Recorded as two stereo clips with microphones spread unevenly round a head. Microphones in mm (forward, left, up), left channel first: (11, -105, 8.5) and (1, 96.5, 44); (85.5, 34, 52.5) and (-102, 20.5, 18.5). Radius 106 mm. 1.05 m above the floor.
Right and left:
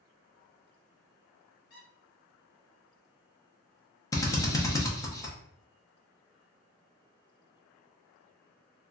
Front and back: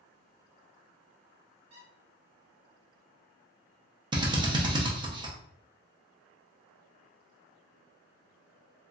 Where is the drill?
140° right, 0.7 m.